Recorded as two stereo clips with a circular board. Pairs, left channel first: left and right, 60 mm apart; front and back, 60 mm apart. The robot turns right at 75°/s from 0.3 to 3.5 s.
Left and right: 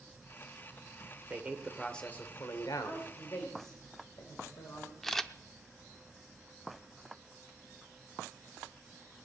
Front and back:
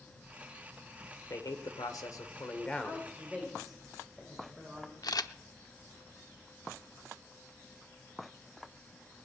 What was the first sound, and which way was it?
A man speaking, 35° right.